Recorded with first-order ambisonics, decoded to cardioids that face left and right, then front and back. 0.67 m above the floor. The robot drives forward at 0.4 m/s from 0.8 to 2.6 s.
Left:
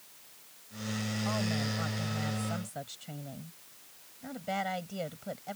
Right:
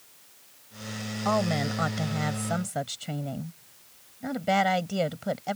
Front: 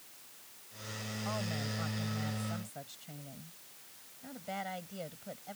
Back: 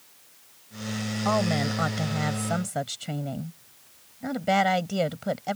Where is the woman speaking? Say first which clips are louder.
Right 10 dB, back 14 dB; 140° right; by 5.6 s 145° right.